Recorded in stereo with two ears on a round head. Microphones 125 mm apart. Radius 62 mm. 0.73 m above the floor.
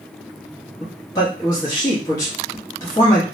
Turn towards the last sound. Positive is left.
turn(degrees=25)  # may be behind; listen again after turning